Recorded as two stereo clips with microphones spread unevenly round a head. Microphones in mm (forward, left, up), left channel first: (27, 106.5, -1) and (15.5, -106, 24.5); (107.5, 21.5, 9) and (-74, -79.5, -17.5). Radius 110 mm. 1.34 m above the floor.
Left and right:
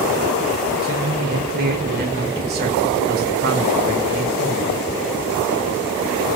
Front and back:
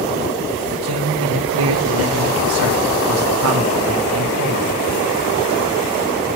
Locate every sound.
0.8 s a man speaking: 140° right, 4.5 m